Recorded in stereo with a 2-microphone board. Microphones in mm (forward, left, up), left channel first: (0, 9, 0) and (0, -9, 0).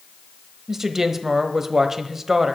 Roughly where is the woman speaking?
Right.